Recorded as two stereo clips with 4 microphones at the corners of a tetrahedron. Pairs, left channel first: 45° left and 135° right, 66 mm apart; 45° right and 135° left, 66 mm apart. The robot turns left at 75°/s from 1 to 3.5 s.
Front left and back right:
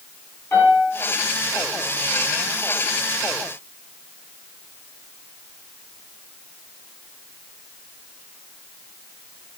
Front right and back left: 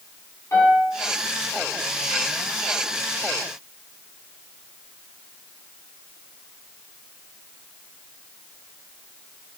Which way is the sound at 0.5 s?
10° right.